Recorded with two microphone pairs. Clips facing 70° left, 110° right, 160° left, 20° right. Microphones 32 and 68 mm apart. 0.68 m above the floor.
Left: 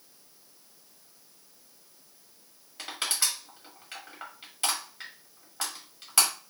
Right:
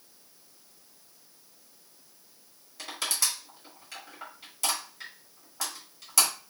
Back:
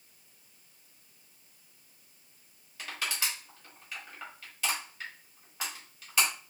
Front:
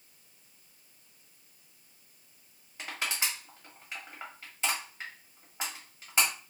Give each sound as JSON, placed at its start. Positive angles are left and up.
{"t": 2.8, "sound": "crushing", "azimuth_deg": 35, "distance_m": 1.3}